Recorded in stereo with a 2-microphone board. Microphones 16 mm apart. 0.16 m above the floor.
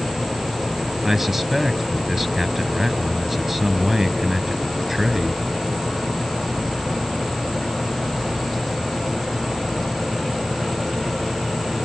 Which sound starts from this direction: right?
A man speaking, at 1.0 s.